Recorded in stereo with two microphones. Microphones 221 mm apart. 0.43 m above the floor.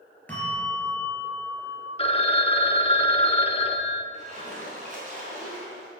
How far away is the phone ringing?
About 0.6 m.